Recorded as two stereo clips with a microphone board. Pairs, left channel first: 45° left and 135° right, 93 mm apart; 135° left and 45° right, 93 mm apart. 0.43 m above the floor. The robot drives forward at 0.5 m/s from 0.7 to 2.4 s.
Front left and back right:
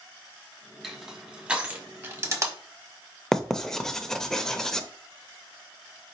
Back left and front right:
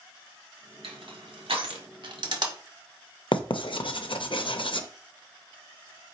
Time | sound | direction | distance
0.8 | crushing | 45° right | 1.4 m
3.3 | writing | 130° left | 0.5 m